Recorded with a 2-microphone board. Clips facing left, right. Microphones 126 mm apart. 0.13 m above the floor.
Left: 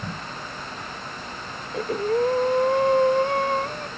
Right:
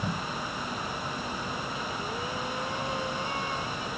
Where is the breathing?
60° left (ahead or behind).